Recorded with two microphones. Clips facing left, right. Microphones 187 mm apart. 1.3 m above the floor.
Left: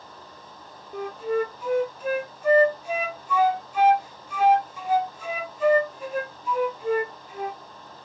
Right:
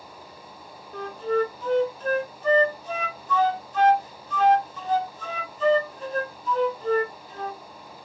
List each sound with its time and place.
0.9 s a flute: 10° left (ahead or behind), 0.6 m